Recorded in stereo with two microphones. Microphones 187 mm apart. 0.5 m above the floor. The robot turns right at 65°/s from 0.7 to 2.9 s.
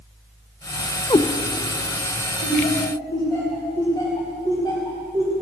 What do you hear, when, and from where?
1.1 s a cat meowing: 30° left (ahead or behind), 0.6 m; by 1.3 s 20° left (ahead or behind), 0.6 m
2.4 s laughter: 50° left (ahead or behind), 3.5 m; by 5.3 s 20° left (ahead or behind), 3.5 m